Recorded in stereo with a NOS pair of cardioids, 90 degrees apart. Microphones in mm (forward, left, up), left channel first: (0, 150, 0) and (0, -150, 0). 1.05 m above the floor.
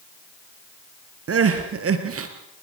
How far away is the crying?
About 4 m.